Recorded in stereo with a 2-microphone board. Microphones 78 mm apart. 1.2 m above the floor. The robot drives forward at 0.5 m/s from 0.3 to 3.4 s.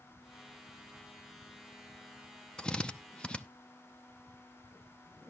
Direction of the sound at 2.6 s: 10° left (ahead or behind).